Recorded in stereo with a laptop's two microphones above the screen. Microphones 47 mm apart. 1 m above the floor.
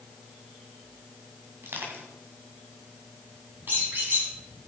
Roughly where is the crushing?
Right.